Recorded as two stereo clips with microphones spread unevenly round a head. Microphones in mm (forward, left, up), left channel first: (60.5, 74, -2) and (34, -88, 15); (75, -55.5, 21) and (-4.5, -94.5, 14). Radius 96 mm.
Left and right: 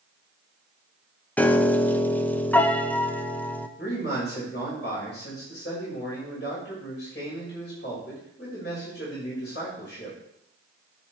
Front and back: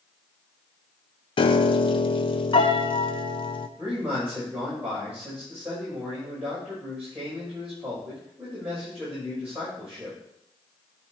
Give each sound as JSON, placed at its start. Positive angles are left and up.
{"t": 1.4, "sound": "a piano", "azimuth_deg": 0, "distance_m": 0.9}
{"t": 3.8, "sound": "a man speaking", "azimuth_deg": 120, "distance_m": 6.0}